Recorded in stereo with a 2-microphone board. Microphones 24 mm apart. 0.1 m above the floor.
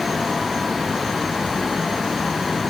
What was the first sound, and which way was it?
Only background noise.